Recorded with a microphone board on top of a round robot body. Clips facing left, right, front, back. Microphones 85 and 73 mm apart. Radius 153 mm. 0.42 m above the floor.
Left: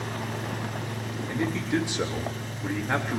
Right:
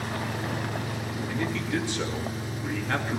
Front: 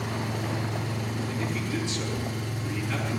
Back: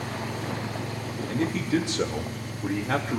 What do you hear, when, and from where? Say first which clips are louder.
0.0 s an engine running: right 1 dB, front 1 dB; 10° right, 6.5 m
1.3 s a man speaking: left 3 dB, back 9 dB; 160° left, 1.9 m